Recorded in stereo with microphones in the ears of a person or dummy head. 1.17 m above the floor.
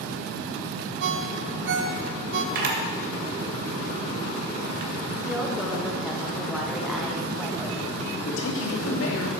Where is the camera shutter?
55° right (ahead or behind), 1.8 m.